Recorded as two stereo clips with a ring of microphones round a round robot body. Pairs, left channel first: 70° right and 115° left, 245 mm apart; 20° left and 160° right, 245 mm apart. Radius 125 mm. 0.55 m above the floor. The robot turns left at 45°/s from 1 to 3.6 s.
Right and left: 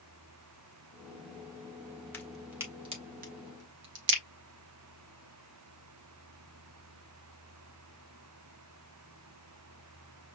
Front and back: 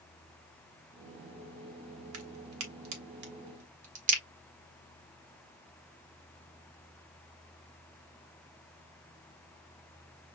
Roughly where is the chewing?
I don't hear chewing.